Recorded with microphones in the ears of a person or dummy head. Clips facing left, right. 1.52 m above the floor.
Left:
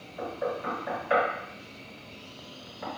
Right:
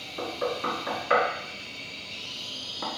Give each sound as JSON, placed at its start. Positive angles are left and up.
{"t": 0.2, "sound": "knocking", "side_deg": -70, "distance_m": 2.5}